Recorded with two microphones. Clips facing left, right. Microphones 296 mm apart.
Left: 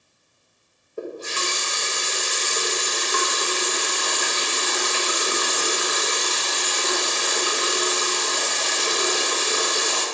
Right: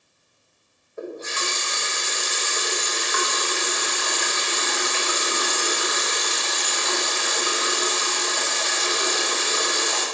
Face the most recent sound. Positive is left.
turn(degrees=40)  # may be behind; listen again after turning